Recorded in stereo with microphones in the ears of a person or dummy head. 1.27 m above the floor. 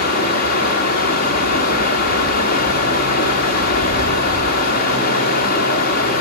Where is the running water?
40° left (ahead or behind), 1.5 m.